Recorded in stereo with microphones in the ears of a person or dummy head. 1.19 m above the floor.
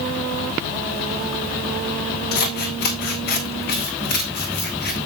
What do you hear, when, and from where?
2.3 s scissors: 55° left (ahead or behind), 1.6 m